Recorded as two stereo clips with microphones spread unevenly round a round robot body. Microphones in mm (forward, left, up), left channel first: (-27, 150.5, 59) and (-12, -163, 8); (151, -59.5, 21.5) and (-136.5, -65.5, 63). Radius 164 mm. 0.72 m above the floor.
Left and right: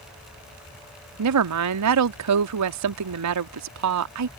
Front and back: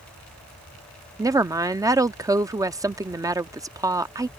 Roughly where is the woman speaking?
Right.